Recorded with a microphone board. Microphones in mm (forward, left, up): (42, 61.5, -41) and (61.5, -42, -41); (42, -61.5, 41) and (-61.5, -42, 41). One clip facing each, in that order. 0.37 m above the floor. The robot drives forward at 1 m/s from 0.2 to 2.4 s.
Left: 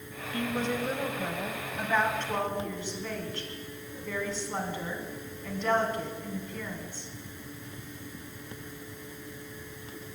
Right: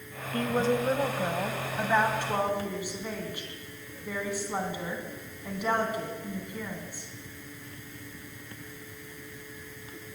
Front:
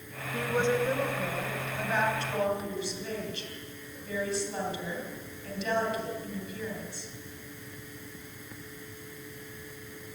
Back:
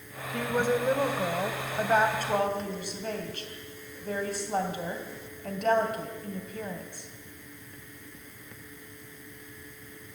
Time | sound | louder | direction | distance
0.3 | a woman speaking | right 4 dB, back 1 dB | 95° right | 1.3 m